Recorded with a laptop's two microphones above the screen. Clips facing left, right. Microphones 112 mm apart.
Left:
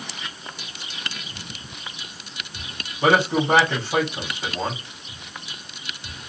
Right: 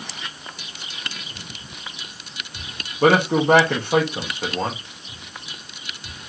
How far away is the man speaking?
About 0.9 m.